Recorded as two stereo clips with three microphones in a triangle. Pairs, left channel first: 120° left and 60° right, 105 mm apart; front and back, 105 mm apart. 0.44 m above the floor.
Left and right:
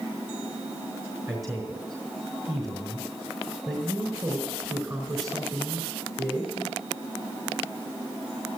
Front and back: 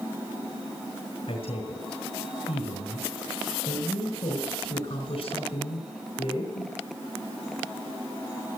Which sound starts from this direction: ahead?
A man speaking, at 1.3 s.